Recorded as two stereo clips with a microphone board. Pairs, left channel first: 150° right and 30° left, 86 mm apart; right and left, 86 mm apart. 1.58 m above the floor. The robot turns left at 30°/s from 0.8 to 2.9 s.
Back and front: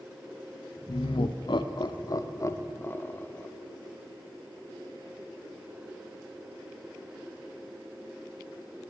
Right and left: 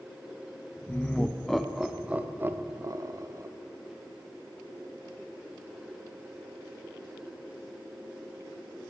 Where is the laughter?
160° right, 0.5 m; by 3.5 s 140° left, 0.5 m.